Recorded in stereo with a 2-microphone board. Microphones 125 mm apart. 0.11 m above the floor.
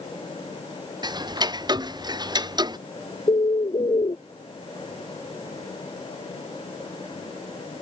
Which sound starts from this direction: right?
Ticking, at 1.0 s.